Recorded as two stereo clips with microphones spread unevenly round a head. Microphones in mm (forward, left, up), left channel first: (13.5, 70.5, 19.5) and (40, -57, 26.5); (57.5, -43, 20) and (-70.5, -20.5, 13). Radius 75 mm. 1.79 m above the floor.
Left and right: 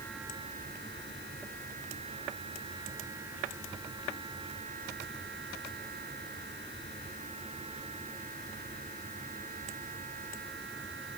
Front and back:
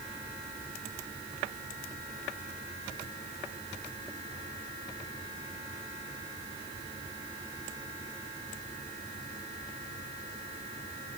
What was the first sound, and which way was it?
Only background noise.